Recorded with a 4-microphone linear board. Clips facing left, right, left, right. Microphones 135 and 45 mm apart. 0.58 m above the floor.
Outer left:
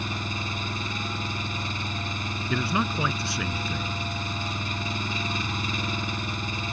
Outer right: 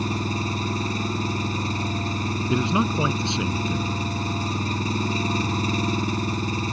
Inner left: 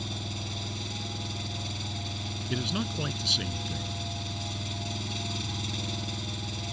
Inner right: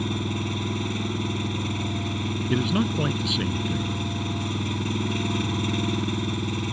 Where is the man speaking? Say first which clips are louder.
Outer right 4 dB, inner right 7 dB; 20° right (ahead or behind).